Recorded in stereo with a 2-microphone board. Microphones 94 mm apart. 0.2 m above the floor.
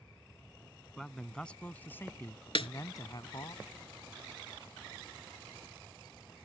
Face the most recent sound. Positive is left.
turn(degrees=70)  # may be behind; listen again after turning